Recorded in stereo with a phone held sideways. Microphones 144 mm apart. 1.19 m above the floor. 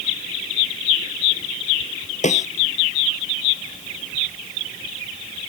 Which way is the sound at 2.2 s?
60° left (ahead or behind).